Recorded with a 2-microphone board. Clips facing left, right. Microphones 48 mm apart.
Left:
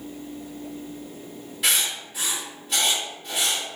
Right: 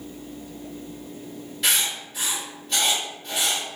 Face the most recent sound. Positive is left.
turn(degrees=5)  # may be behind; listen again after turning